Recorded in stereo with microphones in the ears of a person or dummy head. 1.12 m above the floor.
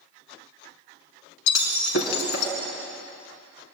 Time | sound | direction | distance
1.5 | breaking glass | 80° left | 4 m